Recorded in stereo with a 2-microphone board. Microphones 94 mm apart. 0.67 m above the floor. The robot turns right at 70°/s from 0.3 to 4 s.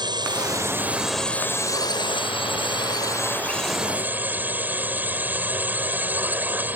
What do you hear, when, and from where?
0.0 s a drone: 60° right; by 6.8 s 160° right